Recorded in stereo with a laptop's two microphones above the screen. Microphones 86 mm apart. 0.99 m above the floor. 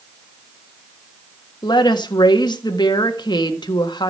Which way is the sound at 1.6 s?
60° left (ahead or behind).